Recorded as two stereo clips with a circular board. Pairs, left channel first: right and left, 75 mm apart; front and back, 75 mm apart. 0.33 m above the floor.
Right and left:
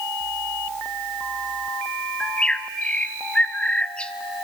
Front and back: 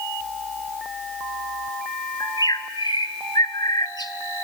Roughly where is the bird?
Ahead.